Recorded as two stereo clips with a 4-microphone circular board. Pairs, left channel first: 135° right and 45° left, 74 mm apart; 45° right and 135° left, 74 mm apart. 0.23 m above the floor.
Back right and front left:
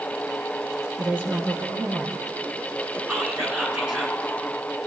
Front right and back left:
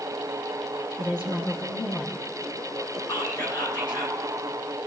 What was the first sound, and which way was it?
A woman speaking, 20° right.